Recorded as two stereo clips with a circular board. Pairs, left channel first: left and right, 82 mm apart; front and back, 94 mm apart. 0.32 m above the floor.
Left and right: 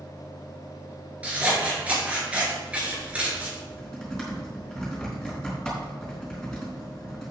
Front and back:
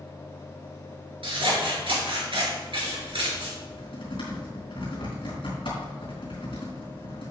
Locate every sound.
1.2 s scissors: 165° right, 4 m
3.6 s typing on a keyboard: 10° left, 4 m